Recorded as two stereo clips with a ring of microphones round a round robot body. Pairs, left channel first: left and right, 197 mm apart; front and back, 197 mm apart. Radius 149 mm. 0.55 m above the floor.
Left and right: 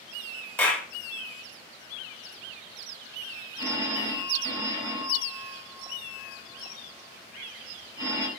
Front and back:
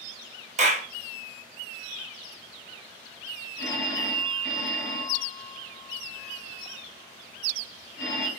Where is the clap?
165° left, 0.9 m.